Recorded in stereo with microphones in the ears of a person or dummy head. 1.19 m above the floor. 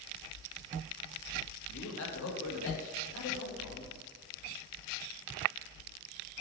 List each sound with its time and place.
1.7 s a man speaking: 80° left, 1.6 m